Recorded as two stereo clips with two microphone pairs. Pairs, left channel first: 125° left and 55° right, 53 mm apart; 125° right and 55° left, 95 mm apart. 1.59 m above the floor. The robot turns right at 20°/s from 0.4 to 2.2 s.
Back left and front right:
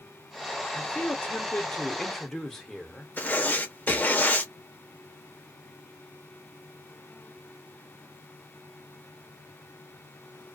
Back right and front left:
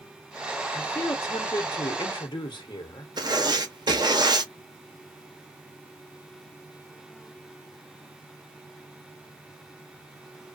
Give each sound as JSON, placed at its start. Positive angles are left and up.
{"t": 0.7, "sound": "a man speaking", "azimuth_deg": 175, "distance_m": 0.9}
{"t": 3.2, "sound": "writing", "azimuth_deg": 80, "distance_m": 0.7}